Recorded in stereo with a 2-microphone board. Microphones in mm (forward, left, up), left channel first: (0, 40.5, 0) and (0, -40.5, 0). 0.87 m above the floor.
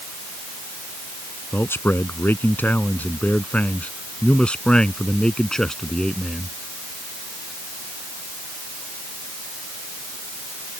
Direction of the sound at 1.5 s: 30° left (ahead or behind).